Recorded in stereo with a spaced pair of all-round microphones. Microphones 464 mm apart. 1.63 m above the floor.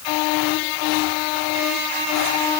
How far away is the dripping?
I don't hear dripping.